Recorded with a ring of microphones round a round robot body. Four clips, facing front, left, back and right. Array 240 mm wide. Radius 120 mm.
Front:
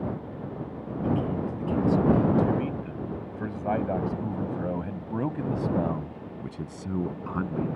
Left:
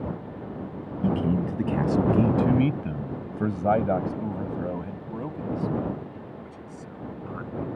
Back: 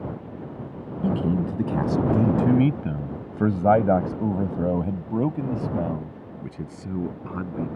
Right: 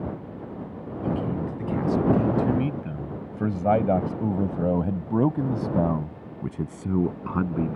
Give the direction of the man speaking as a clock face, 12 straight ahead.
7 o'clock.